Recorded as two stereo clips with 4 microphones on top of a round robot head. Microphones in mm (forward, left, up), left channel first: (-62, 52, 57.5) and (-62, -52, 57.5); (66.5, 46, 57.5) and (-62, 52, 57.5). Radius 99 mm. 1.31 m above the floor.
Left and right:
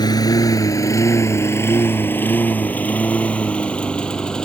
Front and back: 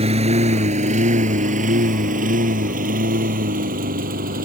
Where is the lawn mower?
140° left; by 4.5 s 170° left.